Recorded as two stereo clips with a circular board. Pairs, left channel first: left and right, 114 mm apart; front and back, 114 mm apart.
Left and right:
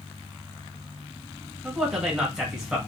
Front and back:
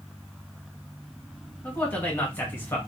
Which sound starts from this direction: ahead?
A man speaking, at 1.6 s.